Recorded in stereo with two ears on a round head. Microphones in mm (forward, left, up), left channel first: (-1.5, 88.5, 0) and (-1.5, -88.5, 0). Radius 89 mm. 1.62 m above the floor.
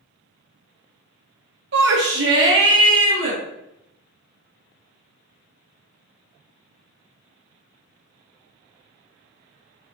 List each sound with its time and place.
1.7 s a shout: 60° right (ahead or behind), 0.7 m; by 3.4 s 65° right (ahead or behind), 2 m